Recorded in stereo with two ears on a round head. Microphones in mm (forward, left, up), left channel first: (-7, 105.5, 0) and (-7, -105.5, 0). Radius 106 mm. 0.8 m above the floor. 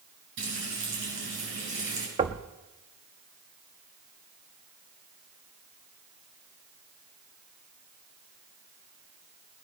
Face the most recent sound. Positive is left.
turn(degrees=-25)  # may be behind; listen again after turning